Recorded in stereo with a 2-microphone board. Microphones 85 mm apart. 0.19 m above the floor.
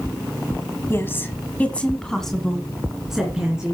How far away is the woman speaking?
About 1.4 m.